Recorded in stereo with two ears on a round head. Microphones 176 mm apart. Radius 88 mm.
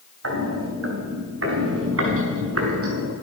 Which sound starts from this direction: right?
Footsteps, at 0.2 s.